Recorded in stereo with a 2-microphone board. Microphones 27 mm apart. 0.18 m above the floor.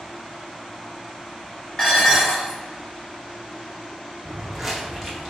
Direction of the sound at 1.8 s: 30° left (ahead or behind).